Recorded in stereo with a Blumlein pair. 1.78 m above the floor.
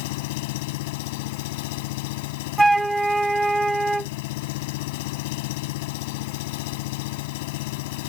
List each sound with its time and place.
0.0 s an engine running: 50° left
2.6 s a flute: 5° right